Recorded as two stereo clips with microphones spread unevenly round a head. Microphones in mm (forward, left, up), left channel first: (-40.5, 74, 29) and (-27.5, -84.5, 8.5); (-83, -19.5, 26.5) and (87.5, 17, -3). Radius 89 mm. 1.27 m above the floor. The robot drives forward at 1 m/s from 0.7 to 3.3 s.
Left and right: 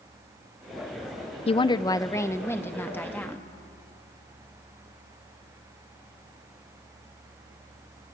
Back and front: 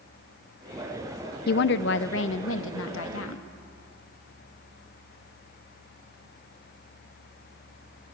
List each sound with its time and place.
1.5 s a woman speaking: 150° left, 0.5 m; by 3.5 s 175° left, 2.5 m